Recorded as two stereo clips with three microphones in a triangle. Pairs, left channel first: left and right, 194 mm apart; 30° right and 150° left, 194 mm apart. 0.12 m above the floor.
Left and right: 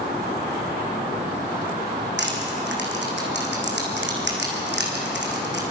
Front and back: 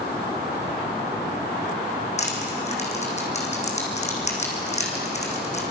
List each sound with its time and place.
2.2 s crushing: 80° right, 3.5 m